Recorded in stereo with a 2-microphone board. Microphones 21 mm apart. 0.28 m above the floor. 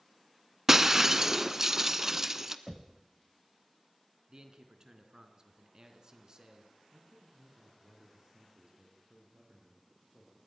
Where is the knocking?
10° right (ahead or behind), 0.8 m.